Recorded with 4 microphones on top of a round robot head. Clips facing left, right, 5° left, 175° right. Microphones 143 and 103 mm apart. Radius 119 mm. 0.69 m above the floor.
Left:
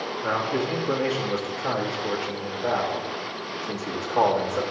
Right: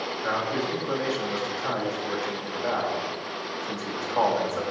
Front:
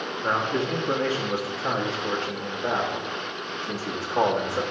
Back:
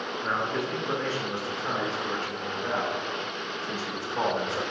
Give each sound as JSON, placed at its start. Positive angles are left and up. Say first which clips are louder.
{"t": 0.2, "sound": "a man speaking", "louder": "left 2 dB, front 4 dB", "azimuth_deg": 10, "distance_m": 1.5}